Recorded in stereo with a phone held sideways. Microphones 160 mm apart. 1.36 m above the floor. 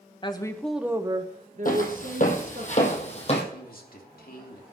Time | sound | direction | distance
0.2 | a woman speaking | 30° left (ahead or behind) | 1.3 m
1.6 | footsteps | 60° left (ahead or behind) | 2.5 m
3.5 | a man speaking | 65° left (ahead or behind) | 2.5 m